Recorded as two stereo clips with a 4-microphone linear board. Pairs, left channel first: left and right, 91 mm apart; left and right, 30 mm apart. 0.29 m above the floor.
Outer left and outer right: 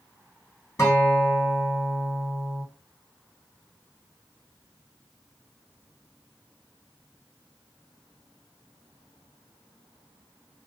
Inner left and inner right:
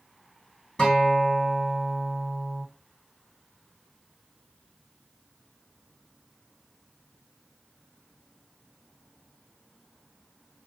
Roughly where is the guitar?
Left.